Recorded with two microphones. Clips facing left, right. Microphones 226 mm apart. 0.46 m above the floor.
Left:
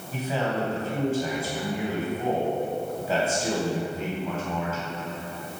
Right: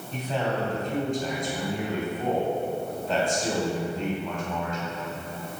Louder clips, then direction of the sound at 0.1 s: Left 1 dB; 5° left (ahead or behind).